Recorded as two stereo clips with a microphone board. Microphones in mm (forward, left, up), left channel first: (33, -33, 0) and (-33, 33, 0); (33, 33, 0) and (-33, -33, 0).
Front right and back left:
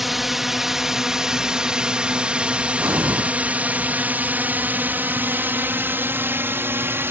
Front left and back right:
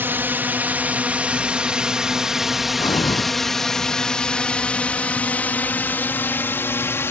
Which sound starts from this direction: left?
Breathing, at 2.8 s.